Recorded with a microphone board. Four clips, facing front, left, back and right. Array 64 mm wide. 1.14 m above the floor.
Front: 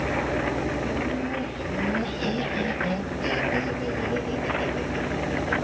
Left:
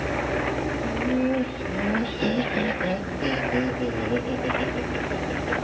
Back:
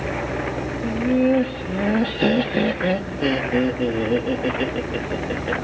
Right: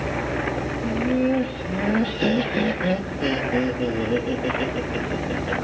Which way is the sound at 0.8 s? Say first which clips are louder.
Right 4 dB, back 8 dB; 170° right.